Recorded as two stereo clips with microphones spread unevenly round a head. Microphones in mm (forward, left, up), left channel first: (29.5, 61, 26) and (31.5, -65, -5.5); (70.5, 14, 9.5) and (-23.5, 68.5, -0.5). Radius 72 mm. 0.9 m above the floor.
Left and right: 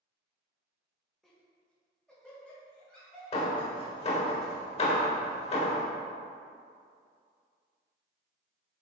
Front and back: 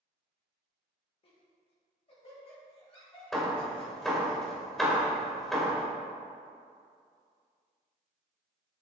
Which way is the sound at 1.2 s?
5° right.